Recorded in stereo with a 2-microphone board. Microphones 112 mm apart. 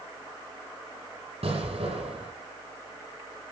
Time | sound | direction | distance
1.4 | an explosion | 70° right (ahead or behind) | 6.5 m